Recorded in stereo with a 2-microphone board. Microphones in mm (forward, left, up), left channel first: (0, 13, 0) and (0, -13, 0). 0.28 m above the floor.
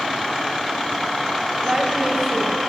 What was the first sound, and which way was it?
A woman speaking, 20° right (ahead or behind).